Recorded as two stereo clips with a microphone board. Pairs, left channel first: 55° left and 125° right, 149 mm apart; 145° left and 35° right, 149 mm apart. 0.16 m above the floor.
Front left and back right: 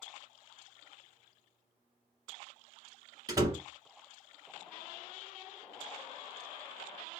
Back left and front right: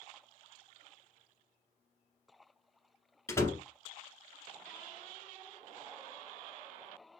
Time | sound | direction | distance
3.3 | a door slam | 165° right | 1.2 m